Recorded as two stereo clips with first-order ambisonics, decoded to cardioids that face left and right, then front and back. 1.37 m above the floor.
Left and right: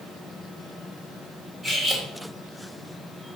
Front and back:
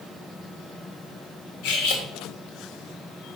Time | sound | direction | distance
1.6 | cutlery clinking | 10° right | 2.5 m